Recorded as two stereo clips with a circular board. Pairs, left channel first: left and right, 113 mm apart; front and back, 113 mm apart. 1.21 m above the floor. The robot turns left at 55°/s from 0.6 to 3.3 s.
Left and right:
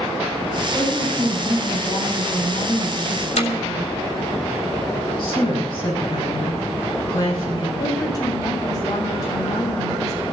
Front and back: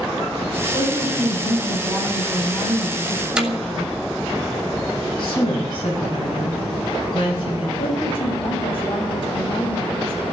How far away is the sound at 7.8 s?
About 7 m.